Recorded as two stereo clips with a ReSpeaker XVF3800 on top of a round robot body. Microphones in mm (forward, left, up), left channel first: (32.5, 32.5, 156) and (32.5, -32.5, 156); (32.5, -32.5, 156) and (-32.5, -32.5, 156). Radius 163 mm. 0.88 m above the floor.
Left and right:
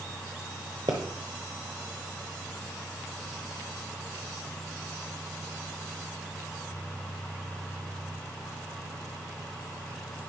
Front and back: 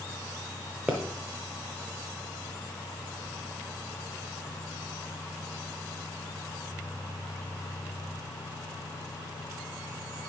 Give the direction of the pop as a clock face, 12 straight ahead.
4 o'clock.